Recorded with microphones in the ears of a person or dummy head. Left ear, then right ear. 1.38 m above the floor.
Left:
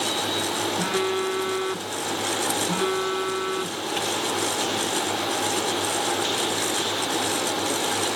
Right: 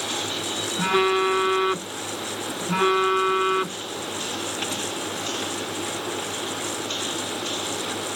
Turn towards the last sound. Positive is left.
turn(degrees=-30)  # may be behind; listen again after turning